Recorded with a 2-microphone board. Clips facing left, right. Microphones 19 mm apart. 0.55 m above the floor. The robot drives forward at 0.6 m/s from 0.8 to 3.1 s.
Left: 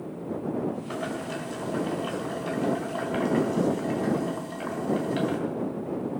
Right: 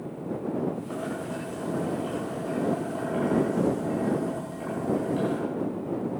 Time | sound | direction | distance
0.9 | boiling | 70° left (ahead or behind) | 3.5 m